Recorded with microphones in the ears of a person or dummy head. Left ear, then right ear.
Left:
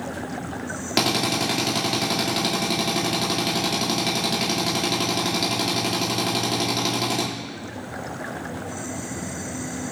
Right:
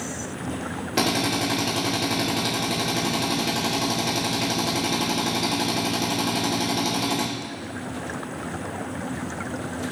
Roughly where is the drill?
Left.